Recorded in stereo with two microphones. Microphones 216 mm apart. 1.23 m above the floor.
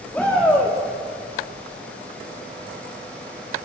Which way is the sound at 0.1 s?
5° left (ahead or behind).